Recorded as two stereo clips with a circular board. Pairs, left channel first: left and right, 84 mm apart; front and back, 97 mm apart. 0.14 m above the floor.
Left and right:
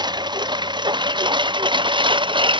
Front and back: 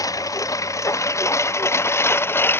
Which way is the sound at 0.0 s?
55° right.